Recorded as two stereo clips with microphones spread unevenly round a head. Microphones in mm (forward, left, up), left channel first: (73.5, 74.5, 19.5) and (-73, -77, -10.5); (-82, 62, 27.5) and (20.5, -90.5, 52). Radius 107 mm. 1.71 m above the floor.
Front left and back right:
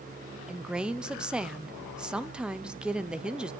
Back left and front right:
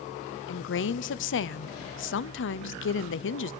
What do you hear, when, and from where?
0.5 s a woman speaking: 140° left, 0.9 m